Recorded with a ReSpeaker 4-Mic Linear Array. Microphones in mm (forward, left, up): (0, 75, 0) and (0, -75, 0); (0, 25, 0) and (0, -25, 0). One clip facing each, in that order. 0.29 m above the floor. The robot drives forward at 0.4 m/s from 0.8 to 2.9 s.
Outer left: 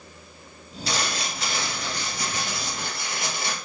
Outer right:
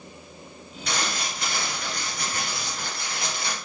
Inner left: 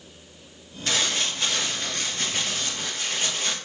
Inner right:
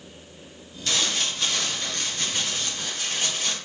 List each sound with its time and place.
0.9 s crumpling: 30° left (ahead or behind), 2.5 m; by 3.5 s 25° left (ahead or behind), 3 m